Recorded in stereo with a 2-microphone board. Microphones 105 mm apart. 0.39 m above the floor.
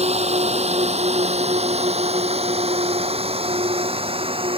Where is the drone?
80° right; by 4.6 s 60° right (ahead or behind).